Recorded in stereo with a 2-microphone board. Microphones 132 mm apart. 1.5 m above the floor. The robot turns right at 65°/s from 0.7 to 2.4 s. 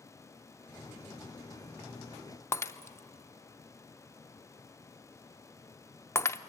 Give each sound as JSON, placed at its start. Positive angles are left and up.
{"t": 2.5, "sound": "breaking glass", "side_deg": 20, "distance_m": 0.5}